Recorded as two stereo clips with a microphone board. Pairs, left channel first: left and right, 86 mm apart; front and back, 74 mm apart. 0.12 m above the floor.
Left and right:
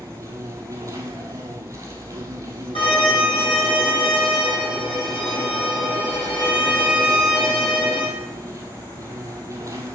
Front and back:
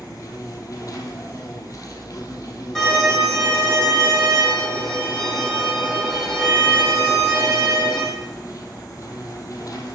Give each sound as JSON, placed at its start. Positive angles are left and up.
{"t": 0.0, "sound": "an insect", "azimuth_deg": -40, "distance_m": 1.1}
{"t": 2.8, "sound": "a violin", "azimuth_deg": 85, "distance_m": 2.5}